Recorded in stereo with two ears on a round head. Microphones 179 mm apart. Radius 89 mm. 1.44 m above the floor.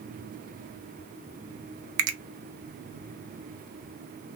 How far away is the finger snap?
About 0.7 m.